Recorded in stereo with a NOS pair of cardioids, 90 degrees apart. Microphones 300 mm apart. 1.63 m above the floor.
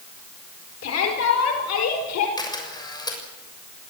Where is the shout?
60° left, 5 m; by 2.3 s 70° left, 6 m.